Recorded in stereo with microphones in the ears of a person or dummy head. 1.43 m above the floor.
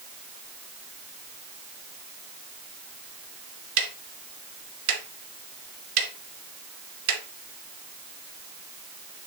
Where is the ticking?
75° right (ahead or behind), 2 m.